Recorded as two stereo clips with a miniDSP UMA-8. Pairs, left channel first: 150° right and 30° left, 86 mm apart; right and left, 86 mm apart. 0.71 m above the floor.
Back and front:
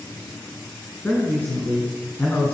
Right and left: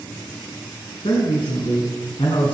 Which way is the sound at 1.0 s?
85° right.